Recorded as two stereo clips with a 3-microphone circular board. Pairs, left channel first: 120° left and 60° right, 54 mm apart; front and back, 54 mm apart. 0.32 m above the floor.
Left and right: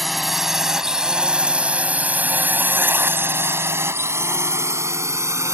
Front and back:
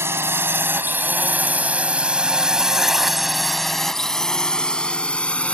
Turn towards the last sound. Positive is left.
turn(degrees=-65)